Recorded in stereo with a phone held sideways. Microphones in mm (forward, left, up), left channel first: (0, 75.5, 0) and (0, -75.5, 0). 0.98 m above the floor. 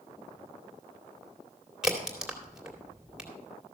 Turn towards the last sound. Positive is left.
turn(degrees=-5)  # may be behind; listen again after turning